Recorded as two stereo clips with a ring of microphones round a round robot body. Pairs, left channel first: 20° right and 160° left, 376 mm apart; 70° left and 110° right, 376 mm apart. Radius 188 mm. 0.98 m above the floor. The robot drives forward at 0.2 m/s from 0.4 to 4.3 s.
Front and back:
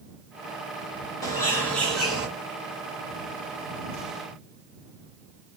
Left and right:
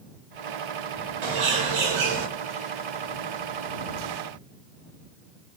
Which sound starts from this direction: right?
A bird, at 1.2 s.